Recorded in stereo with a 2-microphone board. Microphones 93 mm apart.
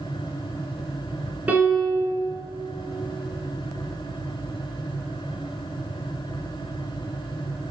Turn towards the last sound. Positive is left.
turn(degrees=-15)  # may be behind; listen again after turning